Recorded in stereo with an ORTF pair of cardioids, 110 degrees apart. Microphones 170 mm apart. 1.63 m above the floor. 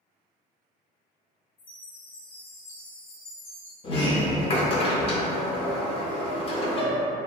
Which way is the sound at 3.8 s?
35° left.